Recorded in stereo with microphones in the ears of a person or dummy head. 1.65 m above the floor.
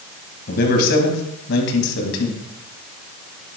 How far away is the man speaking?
About 2.0 m.